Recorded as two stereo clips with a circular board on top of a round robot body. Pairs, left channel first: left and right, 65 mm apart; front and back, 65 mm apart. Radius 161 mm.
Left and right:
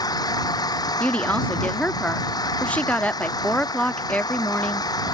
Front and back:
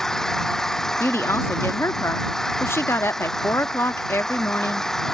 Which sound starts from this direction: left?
An engine running, at 0.0 s.